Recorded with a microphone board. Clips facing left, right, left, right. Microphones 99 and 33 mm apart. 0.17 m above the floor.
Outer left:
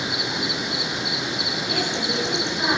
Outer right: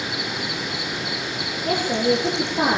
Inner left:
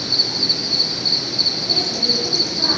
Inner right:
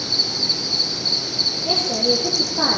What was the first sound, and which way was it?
An insect, 20° left (ahead or behind).